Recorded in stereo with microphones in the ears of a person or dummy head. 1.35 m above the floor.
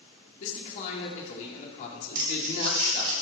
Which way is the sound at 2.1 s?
50° right (ahead or behind).